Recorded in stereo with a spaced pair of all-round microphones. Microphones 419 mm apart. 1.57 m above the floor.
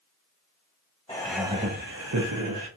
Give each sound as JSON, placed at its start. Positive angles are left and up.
{"t": 1.1, "sound": "laughter", "side_deg": 10, "distance_m": 0.5}